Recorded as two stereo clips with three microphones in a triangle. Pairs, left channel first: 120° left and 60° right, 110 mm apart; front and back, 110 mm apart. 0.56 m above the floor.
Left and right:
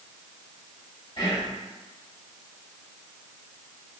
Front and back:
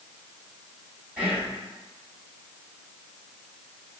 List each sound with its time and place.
1.2 s whispering: 110° left, 1.4 m